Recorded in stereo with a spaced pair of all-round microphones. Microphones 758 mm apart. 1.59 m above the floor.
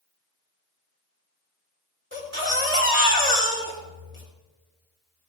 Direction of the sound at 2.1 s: 15° right (ahead or behind).